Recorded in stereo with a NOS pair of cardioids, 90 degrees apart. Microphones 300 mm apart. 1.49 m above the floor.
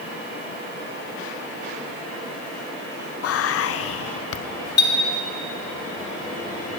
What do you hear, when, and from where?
3.2 s whispering: 50° left, 0.6 m
4.8 s a clink: 35° left, 2 m